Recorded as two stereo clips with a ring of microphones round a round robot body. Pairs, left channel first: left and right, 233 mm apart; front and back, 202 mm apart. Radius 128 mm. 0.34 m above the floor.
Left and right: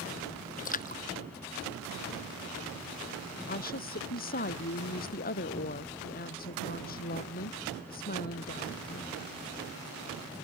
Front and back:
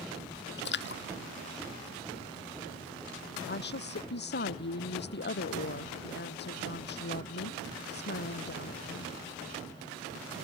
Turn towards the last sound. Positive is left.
turn(degrees=35)